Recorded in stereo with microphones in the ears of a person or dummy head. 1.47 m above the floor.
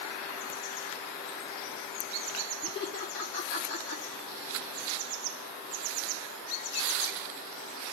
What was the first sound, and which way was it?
Laughter, 70° left (ahead or behind).